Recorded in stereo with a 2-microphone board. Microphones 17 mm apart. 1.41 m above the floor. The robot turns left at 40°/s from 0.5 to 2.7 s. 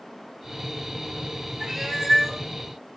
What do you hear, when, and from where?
1.6 s a cat meowing: 115° right, 0.9 m; by 2.4 s 150° right, 0.9 m